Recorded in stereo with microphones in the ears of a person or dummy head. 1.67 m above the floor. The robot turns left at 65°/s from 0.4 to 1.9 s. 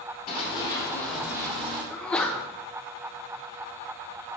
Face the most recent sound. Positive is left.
turn(degrees=5)  # may be behind; listen again after turning